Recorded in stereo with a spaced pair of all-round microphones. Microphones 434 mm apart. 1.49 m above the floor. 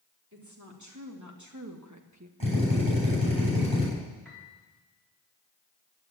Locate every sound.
0.3 s a woman speaking: 40° right (ahead or behind), 4 m
2.4 s a drill: 55° right (ahead or behind), 9 m
4.2 s a piano: centre (ahead or behind), 4 m